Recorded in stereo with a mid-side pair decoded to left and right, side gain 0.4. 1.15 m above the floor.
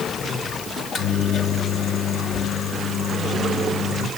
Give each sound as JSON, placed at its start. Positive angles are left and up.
{"t": 0.8, "sound": "a microwave", "azimuth_deg": 70, "distance_m": 2.0}